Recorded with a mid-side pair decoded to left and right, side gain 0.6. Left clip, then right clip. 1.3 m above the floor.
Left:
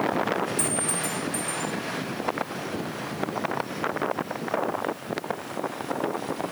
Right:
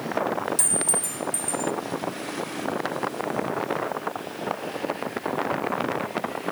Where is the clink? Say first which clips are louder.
Right 1 dB; 35° right, 1.7 m.